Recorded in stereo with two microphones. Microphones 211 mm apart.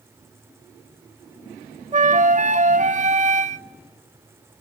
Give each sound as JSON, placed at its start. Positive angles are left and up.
{"t": 1.9, "sound": "a flute", "side_deg": -35, "distance_m": 0.9}